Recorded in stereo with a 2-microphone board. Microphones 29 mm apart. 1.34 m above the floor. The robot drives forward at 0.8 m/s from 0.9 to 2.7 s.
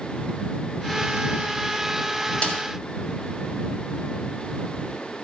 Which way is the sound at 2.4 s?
35° left (ahead or behind).